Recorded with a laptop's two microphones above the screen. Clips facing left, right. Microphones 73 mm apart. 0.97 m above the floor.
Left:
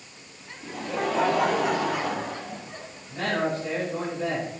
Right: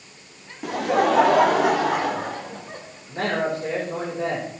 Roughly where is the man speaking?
Right.